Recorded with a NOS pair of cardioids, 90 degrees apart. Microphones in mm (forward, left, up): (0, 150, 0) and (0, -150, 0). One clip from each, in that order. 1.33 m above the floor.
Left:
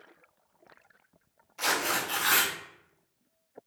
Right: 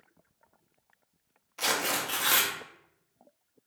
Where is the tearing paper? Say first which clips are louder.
Left 1 dB; 15° right, 0.8 m.